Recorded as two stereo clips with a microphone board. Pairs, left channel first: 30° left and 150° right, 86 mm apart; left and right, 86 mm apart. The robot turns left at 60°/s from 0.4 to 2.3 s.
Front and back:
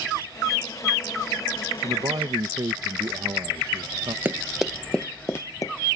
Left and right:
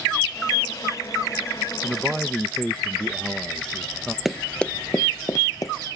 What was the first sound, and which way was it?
A man speaking, 155° right.